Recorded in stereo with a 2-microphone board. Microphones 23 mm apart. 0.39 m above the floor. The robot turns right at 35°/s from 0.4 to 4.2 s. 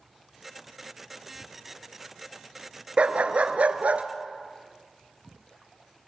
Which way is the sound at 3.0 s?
125° right.